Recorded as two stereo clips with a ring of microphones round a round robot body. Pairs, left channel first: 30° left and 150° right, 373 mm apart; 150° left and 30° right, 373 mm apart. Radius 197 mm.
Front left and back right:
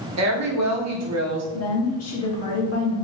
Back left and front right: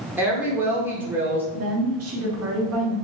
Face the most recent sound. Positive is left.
turn(degrees=0)